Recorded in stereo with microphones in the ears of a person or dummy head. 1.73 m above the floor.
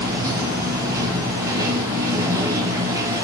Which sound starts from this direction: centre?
Running water, at 0.0 s.